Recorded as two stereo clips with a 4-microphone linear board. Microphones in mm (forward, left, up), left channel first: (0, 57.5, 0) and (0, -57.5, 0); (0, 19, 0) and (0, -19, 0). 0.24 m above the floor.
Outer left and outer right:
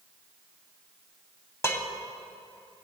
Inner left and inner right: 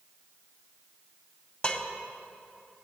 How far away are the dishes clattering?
About 0.9 m.